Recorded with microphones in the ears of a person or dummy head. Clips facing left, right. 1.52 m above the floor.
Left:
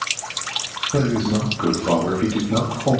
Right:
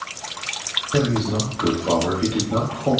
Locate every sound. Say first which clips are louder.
0.9 s a man speaking: left 1 dB; 5° left (ahead or behind), 2.5 m